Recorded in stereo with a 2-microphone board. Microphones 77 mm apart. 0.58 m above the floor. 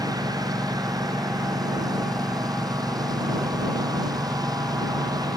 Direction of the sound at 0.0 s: 60° right (ahead or behind).